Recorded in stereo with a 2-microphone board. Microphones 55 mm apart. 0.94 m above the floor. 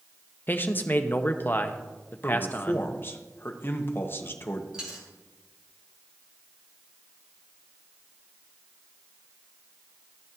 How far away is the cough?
No cough in this recording.